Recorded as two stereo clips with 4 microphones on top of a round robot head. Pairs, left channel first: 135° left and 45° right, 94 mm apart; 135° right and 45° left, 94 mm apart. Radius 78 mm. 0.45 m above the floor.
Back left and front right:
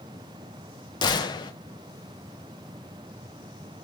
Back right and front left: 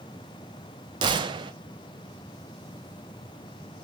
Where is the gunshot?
90° left, 0.6 m.